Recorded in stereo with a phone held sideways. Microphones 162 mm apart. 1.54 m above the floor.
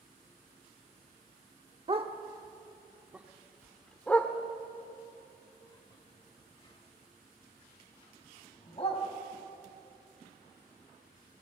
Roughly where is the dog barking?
Right.